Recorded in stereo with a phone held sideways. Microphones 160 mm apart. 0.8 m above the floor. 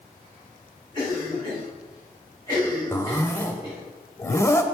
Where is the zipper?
15° left (ahead or behind), 0.6 m.